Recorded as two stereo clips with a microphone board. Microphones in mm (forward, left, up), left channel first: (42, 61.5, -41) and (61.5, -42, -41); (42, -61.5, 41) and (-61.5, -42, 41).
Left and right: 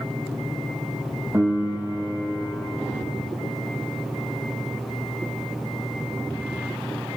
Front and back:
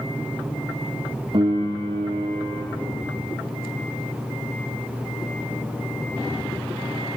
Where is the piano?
150° right, 4 m.